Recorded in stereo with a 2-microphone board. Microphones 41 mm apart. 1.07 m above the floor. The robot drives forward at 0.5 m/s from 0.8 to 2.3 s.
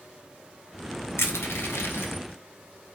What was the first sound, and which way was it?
Crushing, 75° left (ahead or behind).